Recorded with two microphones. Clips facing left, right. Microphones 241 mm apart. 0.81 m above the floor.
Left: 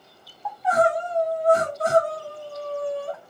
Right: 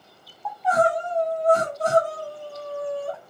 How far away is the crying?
About 2 m.